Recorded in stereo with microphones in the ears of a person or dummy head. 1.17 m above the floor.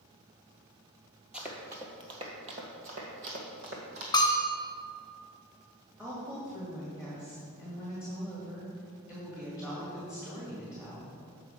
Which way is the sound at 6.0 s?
5° right (ahead or behind).